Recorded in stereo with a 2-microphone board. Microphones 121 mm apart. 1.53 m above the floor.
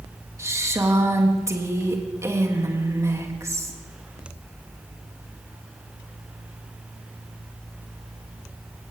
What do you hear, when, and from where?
0.4 s a woman speaking: 25° right (ahead or behind), 2.5 m